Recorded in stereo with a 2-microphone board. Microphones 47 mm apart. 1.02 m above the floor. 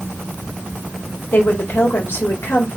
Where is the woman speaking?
55° left (ahead or behind), 1.3 m.